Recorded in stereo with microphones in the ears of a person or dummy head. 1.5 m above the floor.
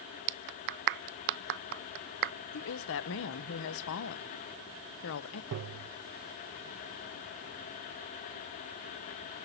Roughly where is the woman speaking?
Left.